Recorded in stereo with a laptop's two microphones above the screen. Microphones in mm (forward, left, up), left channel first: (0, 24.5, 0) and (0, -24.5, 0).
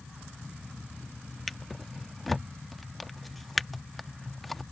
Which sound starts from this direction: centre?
A drawer, at 1.5 s.